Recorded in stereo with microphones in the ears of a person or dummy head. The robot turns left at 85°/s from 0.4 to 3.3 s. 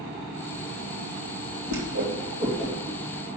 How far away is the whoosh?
About 3 m.